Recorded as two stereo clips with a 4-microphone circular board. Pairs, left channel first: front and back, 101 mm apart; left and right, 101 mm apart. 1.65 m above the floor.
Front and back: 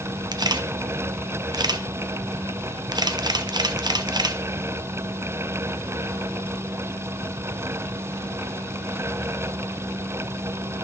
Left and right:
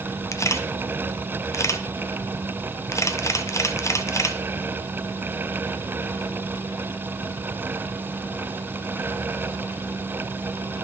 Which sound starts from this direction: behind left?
A camera shutter, at 0.3 s.